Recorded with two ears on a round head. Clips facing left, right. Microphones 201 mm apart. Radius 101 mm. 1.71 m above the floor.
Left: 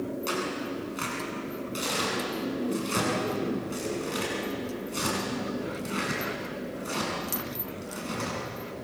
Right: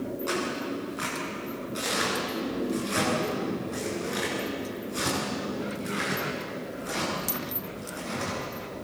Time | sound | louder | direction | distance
0.3 | tearing paper | right 1 dB | 40° left (ahead or behind) | 8.5 m